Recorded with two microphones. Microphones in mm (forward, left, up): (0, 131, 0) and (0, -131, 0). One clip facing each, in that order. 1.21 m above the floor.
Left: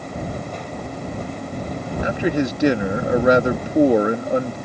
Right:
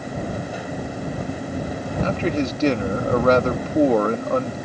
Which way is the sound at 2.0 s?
10° left (ahead or behind).